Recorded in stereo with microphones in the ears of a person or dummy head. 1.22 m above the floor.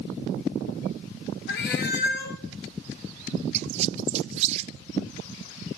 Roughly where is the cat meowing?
Left.